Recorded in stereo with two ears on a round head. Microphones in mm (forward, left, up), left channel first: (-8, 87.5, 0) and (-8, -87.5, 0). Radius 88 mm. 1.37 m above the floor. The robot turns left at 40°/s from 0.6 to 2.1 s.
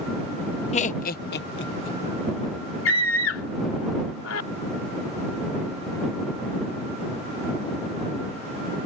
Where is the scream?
75° left (ahead or behind).